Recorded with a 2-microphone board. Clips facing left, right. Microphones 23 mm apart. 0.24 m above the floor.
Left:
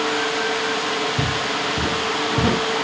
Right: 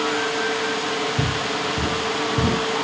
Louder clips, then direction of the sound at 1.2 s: Left 1 dB; 20° left (ahead or behind).